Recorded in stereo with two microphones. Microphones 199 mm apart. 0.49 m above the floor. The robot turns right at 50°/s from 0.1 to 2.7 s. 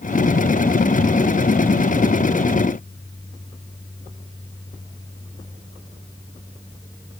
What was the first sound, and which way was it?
Only background noise.